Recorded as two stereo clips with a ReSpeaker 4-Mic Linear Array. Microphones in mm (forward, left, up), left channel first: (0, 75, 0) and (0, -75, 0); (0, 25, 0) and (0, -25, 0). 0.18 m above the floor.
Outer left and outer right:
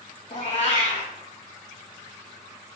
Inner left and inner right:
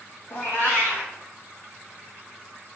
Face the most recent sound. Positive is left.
turn(degrees=50)  # may be behind; listen again after turning